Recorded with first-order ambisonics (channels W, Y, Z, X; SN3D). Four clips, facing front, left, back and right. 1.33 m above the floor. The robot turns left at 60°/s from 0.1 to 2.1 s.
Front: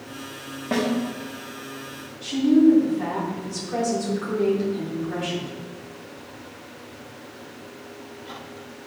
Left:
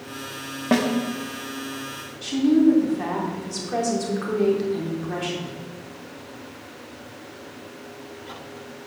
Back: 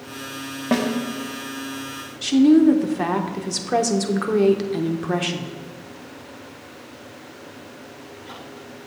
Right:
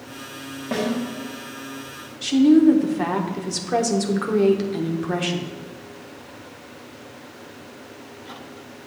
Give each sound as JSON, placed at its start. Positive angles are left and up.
{"t": 0.7, "sound": "a snare drum", "azimuth_deg": 125, "distance_m": 1.0}
{"t": 2.2, "sound": "a woman speaking", "azimuth_deg": -155, "distance_m": 0.8}